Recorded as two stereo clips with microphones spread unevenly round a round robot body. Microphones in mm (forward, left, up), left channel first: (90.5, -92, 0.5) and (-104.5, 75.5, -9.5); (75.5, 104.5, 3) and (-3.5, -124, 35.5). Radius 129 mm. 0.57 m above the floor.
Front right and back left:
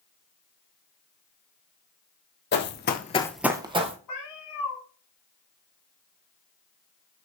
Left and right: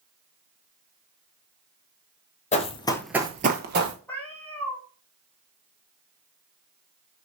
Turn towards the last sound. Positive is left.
turn(degrees=-15)